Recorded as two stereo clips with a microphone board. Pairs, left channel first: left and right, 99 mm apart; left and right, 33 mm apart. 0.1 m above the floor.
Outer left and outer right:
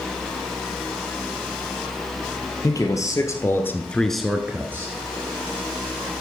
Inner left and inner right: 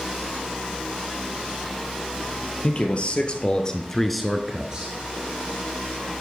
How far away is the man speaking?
About 2.5 m.